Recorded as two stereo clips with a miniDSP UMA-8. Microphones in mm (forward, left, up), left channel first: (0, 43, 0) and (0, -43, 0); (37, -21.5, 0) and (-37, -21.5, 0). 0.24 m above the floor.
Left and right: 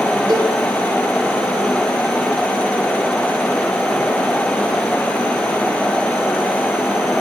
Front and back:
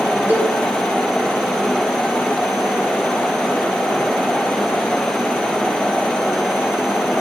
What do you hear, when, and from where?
0.3 s a cowbell: 120° right, 4 m